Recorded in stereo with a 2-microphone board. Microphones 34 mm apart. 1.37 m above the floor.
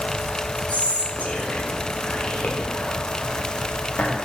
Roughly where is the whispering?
Left.